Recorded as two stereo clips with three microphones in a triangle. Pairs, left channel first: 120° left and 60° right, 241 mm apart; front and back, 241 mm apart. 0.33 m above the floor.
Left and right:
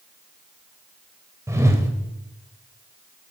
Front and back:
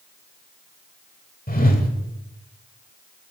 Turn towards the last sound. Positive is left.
turn(degrees=10)